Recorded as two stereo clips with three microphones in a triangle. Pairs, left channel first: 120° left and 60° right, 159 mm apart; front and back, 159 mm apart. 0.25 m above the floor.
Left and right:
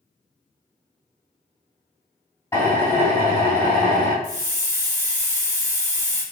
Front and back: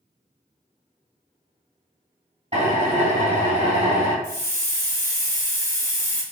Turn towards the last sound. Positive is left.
turn(degrees=-35)